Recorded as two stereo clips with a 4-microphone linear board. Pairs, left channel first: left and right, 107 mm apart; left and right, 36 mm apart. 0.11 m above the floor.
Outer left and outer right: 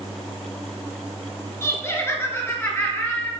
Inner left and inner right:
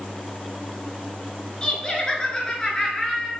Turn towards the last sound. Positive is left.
turn(degrees=20)  # may be behind; listen again after turning